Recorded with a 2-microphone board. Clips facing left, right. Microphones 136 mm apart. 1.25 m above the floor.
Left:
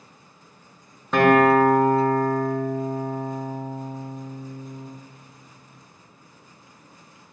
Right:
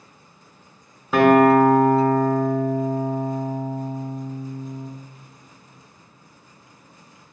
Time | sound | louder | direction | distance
1.1 | a guitar | right 2 dB | 5° right (ahead or behind) | 0.7 m